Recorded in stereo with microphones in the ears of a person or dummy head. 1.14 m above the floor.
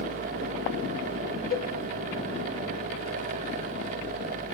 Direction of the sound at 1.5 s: 45° left (ahead or behind).